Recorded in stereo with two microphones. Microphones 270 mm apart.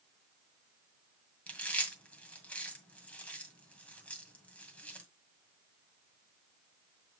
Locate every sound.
1.5 s chewing: 5° left (ahead or behind), 1.8 m